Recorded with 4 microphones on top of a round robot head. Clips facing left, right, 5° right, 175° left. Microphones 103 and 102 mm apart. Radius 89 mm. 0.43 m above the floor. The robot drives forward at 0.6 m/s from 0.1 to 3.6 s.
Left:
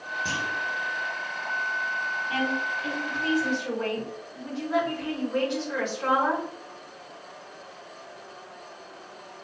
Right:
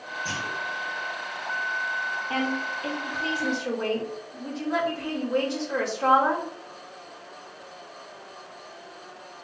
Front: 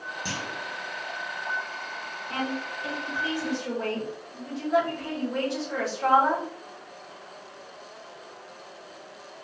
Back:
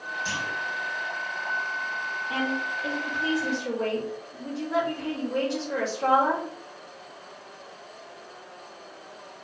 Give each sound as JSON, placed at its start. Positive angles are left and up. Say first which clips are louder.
{"t": 0.2, "sound": "a clunk", "louder": "left 1 dB, back 2 dB", "azimuth_deg": 35, "distance_m": 1.9}
{"t": 2.3, "sound": "a woman speaking", "louder": "even, back 1 dB", "azimuth_deg": -110, "distance_m": 1.8}